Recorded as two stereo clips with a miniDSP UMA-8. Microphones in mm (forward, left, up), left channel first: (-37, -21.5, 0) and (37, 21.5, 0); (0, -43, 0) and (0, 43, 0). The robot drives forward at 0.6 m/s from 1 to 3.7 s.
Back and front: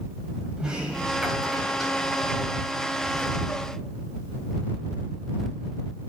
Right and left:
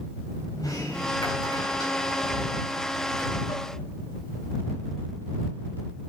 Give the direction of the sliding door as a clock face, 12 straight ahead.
2 o'clock.